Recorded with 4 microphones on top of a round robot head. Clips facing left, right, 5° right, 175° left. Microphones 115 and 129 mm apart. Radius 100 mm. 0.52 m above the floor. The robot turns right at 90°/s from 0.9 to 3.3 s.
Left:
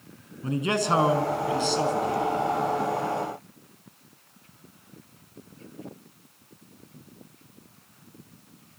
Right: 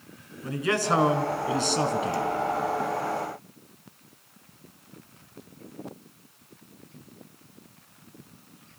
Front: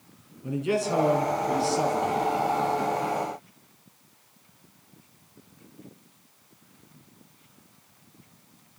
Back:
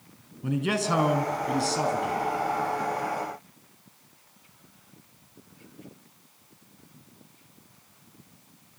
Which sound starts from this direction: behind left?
A man speaking, at 0.4 s.